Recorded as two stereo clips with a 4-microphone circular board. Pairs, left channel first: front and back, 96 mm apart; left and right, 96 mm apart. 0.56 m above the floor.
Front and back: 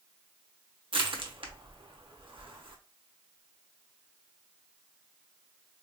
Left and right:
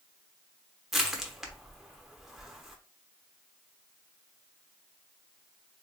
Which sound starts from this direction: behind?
Crushing, at 0.9 s.